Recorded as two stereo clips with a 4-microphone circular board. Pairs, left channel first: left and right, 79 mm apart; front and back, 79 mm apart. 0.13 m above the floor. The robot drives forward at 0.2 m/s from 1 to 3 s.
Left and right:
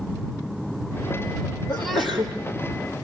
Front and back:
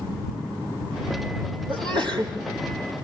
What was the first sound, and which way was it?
A sneeze, 175° left.